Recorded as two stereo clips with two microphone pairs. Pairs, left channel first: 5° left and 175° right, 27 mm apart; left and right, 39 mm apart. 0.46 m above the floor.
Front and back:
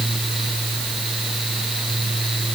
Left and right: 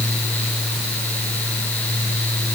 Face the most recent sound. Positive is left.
No sound to turn to.